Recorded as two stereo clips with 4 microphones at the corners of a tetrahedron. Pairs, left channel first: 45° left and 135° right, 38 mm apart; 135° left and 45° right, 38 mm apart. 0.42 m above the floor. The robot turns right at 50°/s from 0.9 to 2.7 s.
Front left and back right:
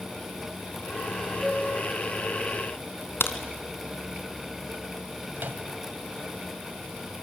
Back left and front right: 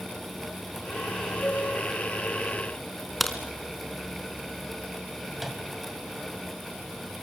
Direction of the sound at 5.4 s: 130° right.